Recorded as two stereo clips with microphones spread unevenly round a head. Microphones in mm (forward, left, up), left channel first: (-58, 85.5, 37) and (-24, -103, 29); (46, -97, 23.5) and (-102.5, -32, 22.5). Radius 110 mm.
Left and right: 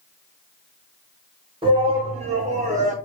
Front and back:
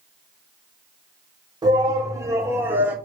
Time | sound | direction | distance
1.6 | a shout | 140° right | 4 m